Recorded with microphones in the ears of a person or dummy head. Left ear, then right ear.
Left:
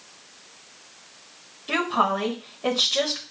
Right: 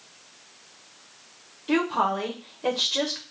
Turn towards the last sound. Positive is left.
turn(degrees=-5)  # may be behind; listen again after turning